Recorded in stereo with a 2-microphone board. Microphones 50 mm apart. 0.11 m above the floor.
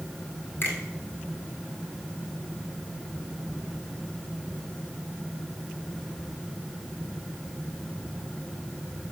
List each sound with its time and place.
0.6 s a finger snap: 50° left (ahead or behind), 2.5 m